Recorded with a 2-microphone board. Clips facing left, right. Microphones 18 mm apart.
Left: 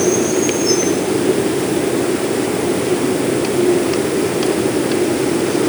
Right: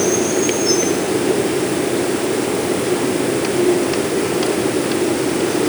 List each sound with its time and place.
Only background noise.